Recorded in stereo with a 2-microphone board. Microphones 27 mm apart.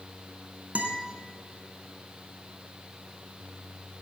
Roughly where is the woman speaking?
I don't hear a woman speaking.